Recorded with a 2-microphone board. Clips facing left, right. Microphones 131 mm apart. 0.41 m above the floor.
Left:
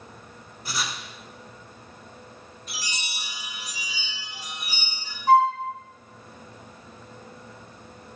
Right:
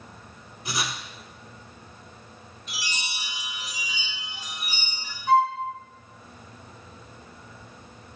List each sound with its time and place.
0.7 s writing: 15° right (ahead or behind), 0.7 m
2.7 s a chime: 35° left (ahead or behind), 1.9 m
5.3 s a flute: 35° left (ahead or behind), 1.7 m